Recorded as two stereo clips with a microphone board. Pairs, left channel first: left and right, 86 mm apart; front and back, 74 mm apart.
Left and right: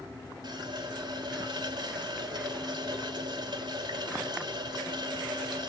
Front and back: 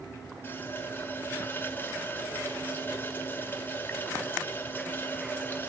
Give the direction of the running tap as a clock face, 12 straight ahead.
2 o'clock.